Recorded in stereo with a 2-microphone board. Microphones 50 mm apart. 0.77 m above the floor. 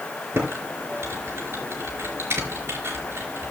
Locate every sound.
0.3 s typing on a keyboard: 60° right (ahead or behind), 4 m